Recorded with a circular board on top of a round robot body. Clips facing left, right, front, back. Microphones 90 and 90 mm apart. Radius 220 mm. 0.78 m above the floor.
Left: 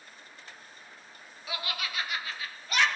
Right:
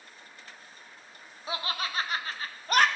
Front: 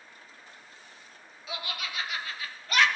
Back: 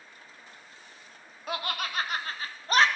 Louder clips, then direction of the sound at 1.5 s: Right 3 dB, back 5 dB; 145° right.